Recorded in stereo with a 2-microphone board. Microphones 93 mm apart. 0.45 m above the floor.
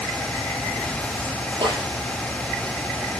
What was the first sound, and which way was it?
A snare drum, 55° right (ahead or behind).